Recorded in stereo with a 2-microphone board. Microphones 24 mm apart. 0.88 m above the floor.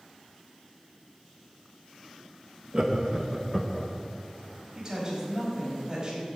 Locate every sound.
2.7 s laughter: 25° right (ahead or behind), 1.3 m; by 3.9 s 25° left (ahead or behind), 1.0 m
4.8 s a woman speaking: 25° right (ahead or behind), 4.5 m